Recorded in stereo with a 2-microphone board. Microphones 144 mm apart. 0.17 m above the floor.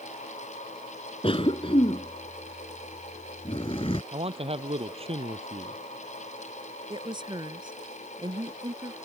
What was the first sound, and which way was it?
A cough, 40° left (ahead or behind).